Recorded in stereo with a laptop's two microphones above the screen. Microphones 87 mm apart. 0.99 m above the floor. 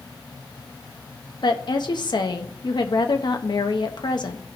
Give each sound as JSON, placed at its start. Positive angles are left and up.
{"t": 1.4, "sound": "a woman speaking", "side_deg": 55, "distance_m": 0.8}